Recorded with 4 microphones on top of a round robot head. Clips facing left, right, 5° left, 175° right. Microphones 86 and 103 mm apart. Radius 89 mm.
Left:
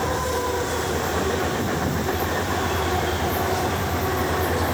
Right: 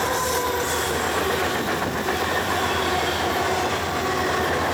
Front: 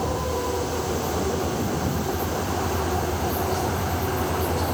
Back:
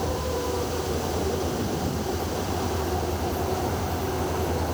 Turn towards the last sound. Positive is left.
No sound to turn to.